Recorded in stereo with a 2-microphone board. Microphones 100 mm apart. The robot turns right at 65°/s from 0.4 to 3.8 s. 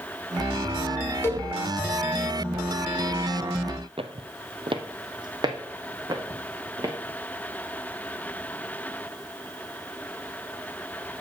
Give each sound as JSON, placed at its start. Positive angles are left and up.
{"t": 1.2, "sound": "a cowbell", "side_deg": 25, "distance_m": 0.9}
{"t": 4.0, "sound": "footsteps", "side_deg": -65, "distance_m": 0.6}